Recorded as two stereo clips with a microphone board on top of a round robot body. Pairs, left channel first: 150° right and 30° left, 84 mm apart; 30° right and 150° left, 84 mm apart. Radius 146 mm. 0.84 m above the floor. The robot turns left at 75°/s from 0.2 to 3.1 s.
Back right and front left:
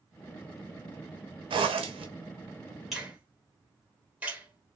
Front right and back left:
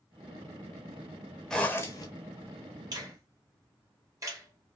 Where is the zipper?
55° left, 0.6 m; by 2.1 s 10° left, 0.6 m.